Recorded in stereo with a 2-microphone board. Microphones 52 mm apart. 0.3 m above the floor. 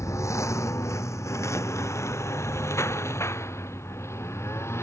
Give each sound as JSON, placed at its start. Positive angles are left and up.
{"t": 0.0, "sound": "a lawn mower", "side_deg": 75}